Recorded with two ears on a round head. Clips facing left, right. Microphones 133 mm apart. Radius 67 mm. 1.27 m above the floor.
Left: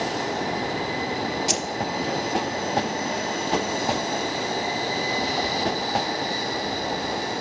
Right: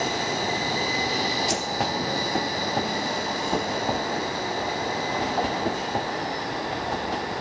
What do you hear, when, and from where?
1.5 s keys jangling: 30° left (ahead or behind), 0.5 m